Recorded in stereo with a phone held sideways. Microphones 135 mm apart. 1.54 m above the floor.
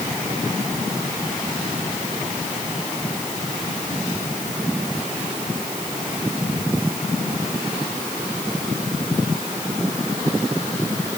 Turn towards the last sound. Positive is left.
No sound to turn to.